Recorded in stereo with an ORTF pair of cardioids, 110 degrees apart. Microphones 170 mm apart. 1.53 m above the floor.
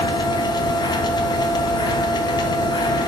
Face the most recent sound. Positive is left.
turn(degrees=25)